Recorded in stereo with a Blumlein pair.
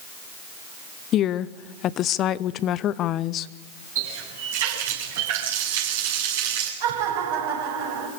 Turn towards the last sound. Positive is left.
turn(degrees=-55)